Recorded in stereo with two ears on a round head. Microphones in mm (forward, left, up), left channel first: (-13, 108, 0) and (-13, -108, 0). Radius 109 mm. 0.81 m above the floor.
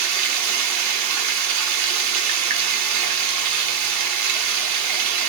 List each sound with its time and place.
0.0 s running water: 80° right, 1.0 m